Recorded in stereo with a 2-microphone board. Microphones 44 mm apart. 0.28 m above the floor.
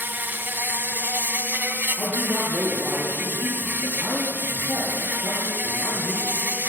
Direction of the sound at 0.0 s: 50° right (ahead or behind).